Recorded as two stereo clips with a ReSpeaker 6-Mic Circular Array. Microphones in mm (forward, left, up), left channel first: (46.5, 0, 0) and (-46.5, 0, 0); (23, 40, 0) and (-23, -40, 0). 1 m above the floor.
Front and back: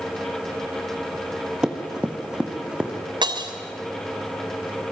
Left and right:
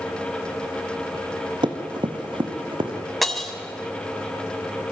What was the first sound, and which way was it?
Running footsteps, 100° right.